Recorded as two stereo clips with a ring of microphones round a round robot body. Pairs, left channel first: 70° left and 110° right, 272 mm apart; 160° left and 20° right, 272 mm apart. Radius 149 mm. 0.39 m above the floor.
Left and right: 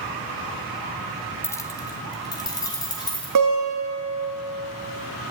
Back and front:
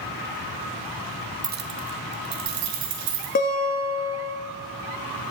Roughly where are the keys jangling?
Ahead.